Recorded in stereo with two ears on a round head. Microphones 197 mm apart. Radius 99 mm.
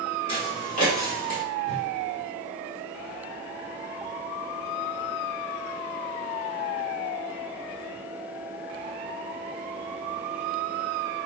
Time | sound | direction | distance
0.3 | footsteps | 25° left (ahead or behind) | 1.6 m
1.6 | a whoosh | 30° right (ahead or behind) | 0.7 m